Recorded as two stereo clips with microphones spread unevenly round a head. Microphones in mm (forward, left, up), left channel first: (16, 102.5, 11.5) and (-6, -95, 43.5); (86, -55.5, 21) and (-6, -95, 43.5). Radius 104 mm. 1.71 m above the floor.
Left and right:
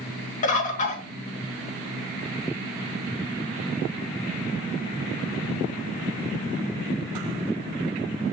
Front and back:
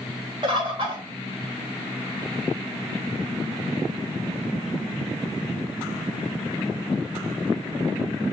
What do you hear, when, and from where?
0.4 s a bird: 140° left, 1.1 m